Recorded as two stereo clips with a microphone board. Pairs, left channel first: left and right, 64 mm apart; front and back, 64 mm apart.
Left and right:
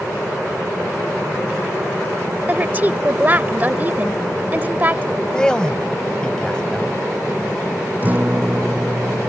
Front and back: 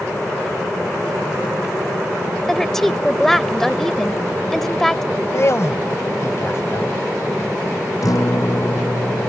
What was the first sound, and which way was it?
A woman speaking, 80° right.